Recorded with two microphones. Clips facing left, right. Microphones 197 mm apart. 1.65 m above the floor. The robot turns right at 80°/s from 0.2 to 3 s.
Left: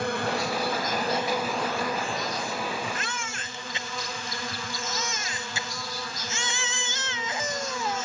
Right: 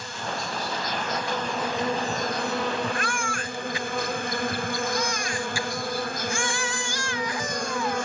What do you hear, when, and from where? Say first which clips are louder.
0.0 s an insect: left 6 dB; 75° left; by 8.1 s 65° right
2.9 s a baby crying: right 6 dB; 20° left (ahead or behind); by 8.1 s 25° left (ahead or behind)